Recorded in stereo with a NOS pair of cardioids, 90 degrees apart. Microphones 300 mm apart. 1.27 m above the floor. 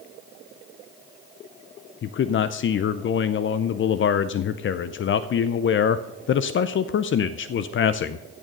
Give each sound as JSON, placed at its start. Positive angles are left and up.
{"t": 2.0, "sound": "a man speaking", "azimuth_deg": 40, "distance_m": 0.6}